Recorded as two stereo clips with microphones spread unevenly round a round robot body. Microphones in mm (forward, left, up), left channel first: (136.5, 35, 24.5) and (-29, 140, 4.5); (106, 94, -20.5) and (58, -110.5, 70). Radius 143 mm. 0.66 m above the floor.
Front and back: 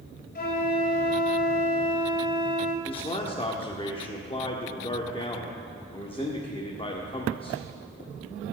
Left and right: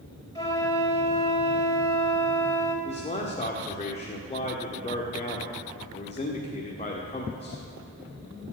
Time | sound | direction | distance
0.3 | a flute | 5° left | 3.5 m
2.9 | a man speaking | 30° left | 1.5 m